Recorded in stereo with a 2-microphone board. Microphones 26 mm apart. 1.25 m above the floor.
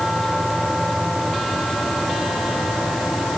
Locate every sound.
Only background noise.